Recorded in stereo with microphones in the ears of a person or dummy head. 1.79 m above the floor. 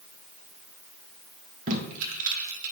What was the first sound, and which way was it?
Tape being pulled, 40° right (ahead or behind).